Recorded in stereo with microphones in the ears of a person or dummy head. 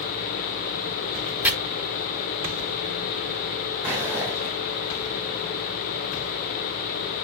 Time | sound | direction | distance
1.4 | chopping | 10° right (ahead or behind) | 4 m
3.8 | footsteps | 5° right (ahead or behind) | 4 m